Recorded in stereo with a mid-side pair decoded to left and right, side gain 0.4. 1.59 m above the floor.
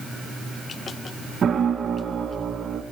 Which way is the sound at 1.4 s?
55° right.